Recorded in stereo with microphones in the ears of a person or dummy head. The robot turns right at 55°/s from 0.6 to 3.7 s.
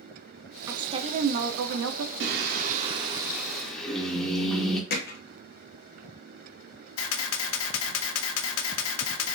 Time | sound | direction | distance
0.7 | a woman speaking | 165° right | 0.6 m
2.2 | singing | 75° right | 0.9 m
4.9 | hammering | 50° left (ahead or behind) | 0.8 m
7.0 | a camera shutter | 75° left (ahead or behind) | 0.7 m